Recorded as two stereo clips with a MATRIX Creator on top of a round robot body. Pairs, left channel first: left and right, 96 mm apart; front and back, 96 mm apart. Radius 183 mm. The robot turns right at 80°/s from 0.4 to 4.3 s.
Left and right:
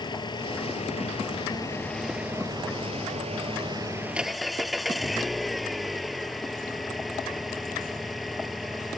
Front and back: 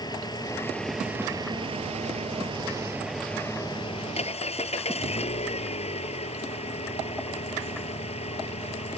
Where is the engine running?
50° left; by 9.0 s straight ahead.